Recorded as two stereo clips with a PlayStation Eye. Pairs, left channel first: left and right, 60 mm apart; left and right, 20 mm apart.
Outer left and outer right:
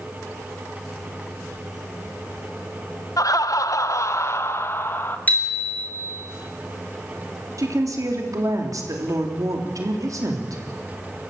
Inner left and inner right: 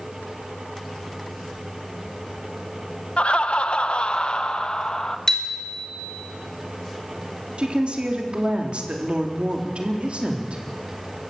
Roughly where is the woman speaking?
Right.